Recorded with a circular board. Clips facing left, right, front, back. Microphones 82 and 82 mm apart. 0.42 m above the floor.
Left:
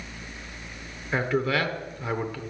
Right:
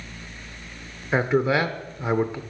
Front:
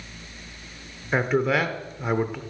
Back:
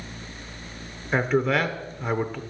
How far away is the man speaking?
About 0.8 m.